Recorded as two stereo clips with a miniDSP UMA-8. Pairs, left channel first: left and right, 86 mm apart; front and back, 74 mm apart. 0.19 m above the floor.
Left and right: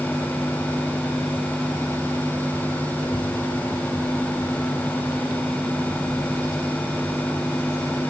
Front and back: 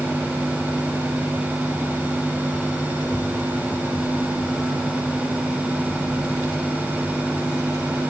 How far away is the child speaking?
About 9 m.